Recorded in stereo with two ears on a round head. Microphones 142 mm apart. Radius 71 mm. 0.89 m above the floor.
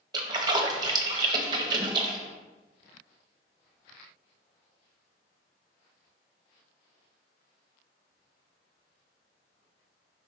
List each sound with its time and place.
0.1 s a splash: 25° right (ahead or behind), 1.0 m